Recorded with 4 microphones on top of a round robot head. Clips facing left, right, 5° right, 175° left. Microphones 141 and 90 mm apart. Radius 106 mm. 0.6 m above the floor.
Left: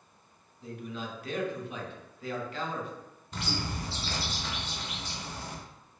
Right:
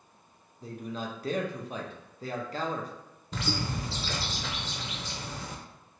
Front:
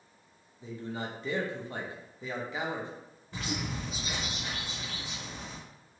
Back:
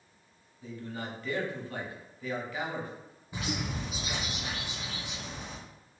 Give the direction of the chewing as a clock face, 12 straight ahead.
I don't hear chewing.